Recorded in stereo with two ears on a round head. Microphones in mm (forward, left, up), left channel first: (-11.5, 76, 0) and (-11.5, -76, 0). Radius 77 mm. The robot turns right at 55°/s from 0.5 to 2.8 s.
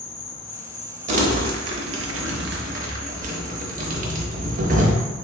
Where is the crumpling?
40° right (ahead or behind), 0.7 m; by 4.9 s 45° right (ahead or behind), 0.7 m.